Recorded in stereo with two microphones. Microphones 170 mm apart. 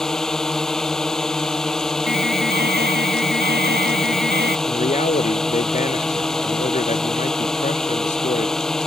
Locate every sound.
0.0 s a drone: 5° left (ahead or behind)
2.1 s an alarm: 70° right (ahead or behind)
4.7 s a man speaking: 50° left (ahead or behind)